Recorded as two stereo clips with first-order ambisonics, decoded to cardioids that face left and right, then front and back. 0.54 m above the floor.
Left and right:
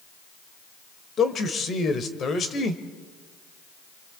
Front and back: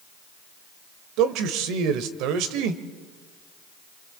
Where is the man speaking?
155° left, 1.9 m.